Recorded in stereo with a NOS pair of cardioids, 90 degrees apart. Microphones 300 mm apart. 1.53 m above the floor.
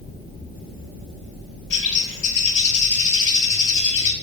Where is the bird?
40° left, 2 m.